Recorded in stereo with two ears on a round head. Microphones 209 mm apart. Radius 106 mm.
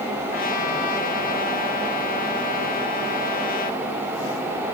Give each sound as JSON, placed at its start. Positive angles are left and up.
{"t": 0.3, "sound": "a trumpet", "side_deg": 40, "distance_m": 1.9}